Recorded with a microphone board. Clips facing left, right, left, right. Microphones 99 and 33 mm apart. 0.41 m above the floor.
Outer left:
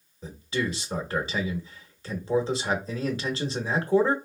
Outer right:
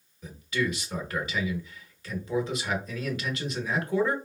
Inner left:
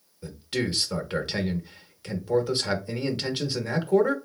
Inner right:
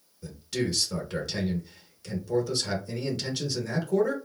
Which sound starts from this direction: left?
A man speaking, at 0.2 s.